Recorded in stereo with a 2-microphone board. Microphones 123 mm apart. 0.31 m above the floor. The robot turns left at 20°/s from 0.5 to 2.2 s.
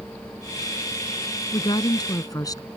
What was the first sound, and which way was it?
A woman speaking, 45° left (ahead or behind).